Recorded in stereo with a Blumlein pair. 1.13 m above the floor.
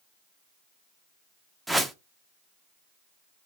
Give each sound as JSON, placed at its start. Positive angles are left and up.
{"t": 1.7, "sound": "a whoosh", "azimuth_deg": -5, "distance_m": 0.6}